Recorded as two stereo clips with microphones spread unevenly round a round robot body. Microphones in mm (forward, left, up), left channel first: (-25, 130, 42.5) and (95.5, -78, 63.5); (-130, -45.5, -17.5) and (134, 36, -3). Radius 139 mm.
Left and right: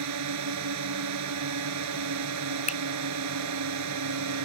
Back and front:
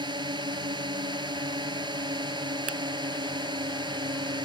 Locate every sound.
0.0 s a drone: 60° right
2.7 s a finger snap: 60° left